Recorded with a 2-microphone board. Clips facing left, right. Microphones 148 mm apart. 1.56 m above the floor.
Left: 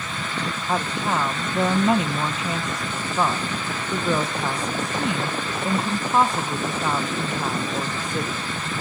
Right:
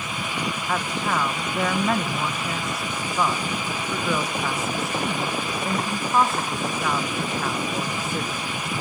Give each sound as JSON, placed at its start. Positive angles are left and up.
{"t": 0.7, "sound": "a woman speaking", "side_deg": 15, "distance_m": 1.0}